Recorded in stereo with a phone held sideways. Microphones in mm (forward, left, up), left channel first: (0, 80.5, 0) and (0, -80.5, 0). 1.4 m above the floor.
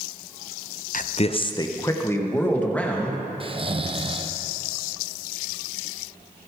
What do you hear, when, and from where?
0.9 s a man speaking: 55° left (ahead or behind), 0.7 m; by 3.3 s 5° left (ahead or behind), 2.5 m
3.4 s snoring: 35° right (ahead or behind), 0.7 m